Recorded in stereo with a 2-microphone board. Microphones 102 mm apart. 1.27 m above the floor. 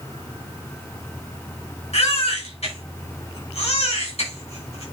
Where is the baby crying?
90° left, 5 m.